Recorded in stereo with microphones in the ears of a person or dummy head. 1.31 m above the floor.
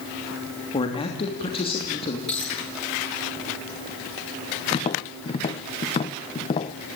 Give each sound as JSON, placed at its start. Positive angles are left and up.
{"t": 0.7, "sound": "a man speaking", "side_deg": 25, "distance_m": 3.0}
{"t": 2.3, "sound": "a dropped coin", "side_deg": 0, "distance_m": 8.5}
{"t": 4.7, "sound": "tapping", "side_deg": 25, "distance_m": 0.6}